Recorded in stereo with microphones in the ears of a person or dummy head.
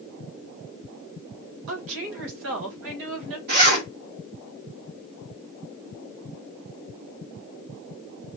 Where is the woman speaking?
65° right (ahead or behind), 1.3 m.